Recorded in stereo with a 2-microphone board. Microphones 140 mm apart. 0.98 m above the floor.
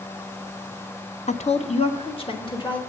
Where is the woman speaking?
55° left (ahead or behind), 0.5 m; by 2.8 s 35° left (ahead or behind), 1.4 m.